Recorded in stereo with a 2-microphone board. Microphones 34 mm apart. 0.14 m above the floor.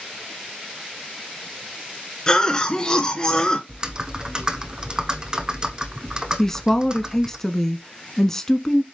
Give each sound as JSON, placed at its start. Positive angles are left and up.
{"t": 2.3, "sound": "a cough", "side_deg": 20, "distance_m": 1.9}
{"t": 3.7, "sound": "typing on a keyboard", "side_deg": -25, "distance_m": 1.0}
{"t": 6.4, "sound": "a woman speaking", "side_deg": 10, "distance_m": 1.0}